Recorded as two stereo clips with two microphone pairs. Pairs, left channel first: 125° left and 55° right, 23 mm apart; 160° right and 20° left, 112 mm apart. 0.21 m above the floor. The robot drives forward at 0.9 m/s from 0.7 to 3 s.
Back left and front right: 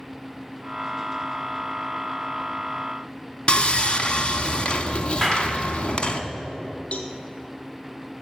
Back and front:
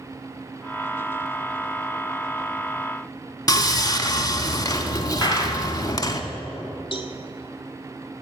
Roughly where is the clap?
Behind.